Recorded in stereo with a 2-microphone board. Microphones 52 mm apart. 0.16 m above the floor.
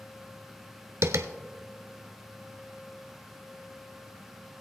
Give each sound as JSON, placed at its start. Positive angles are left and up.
{"t": 1.0, "sound": "tapping", "side_deg": -60, "distance_m": 0.7}